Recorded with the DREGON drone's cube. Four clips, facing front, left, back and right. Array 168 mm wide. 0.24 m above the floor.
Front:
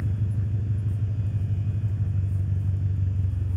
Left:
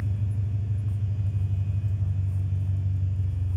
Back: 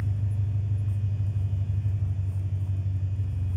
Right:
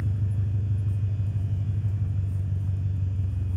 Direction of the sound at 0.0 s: 25° right.